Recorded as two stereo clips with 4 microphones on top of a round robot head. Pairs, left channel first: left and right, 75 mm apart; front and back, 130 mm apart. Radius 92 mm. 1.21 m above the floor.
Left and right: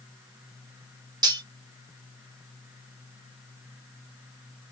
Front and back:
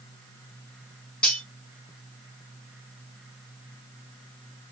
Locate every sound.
1.2 s cutlery clinking: 85° right, 0.5 m